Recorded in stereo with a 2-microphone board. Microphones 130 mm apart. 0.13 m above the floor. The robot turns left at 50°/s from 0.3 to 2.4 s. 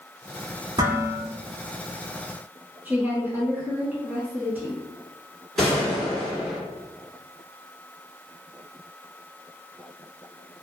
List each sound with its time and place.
0.8 s dishes clattering: 40° right (ahead or behind), 1.4 m; by 1.2 s 45° right (ahead or behind), 1.4 m
2.9 s a woman speaking: 15° right (ahead or behind), 1.0 m
5.6 s a gunshot: centre (ahead or behind), 1.7 m